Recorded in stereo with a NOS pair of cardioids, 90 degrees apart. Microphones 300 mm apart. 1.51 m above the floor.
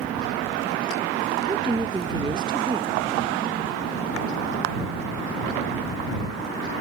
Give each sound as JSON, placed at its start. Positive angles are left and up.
{"t": 1.5, "sound": "a woman speaking", "azimuth_deg": -15}